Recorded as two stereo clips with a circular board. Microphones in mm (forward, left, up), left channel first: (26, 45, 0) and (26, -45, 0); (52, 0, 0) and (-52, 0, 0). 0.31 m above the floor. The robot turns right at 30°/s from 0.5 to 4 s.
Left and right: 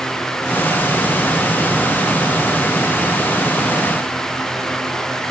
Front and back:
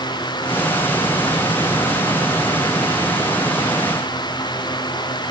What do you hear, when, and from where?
Only background noise.